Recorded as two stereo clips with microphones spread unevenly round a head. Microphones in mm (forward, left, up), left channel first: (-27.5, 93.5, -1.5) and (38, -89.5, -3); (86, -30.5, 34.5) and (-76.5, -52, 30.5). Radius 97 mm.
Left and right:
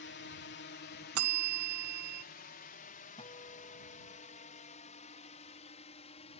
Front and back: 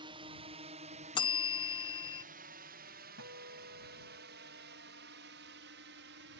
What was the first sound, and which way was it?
A drone, 130° left.